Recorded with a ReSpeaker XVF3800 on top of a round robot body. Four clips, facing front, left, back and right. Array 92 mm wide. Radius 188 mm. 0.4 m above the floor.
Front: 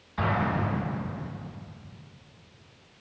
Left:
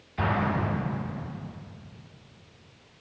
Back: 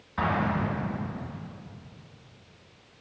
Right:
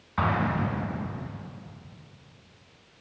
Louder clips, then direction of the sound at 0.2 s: Right 1 dB, even; 100° right.